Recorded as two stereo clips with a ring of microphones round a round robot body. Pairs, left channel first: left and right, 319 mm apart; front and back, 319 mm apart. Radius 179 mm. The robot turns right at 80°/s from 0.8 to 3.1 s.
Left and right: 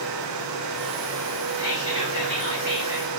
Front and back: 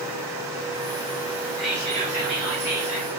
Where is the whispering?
85° left, 1.8 m; by 3.1 s 150° right, 1.8 m.